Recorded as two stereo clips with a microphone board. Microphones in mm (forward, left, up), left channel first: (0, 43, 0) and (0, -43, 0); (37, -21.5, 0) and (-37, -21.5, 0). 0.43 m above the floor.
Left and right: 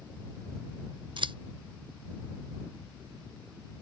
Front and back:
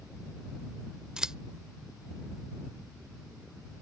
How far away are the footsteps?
I don't hear footsteps.